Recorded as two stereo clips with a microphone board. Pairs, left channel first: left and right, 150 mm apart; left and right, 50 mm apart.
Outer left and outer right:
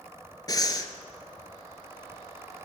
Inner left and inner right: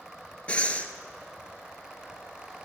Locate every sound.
0.5 s breathing: 25° left (ahead or behind), 1.0 m